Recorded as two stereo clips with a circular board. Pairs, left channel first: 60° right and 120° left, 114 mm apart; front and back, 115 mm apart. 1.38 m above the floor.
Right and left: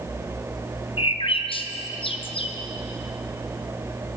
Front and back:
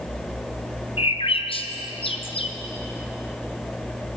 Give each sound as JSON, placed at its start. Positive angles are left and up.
{"t": 1.0, "sound": "a bird", "azimuth_deg": -30, "distance_m": 0.6}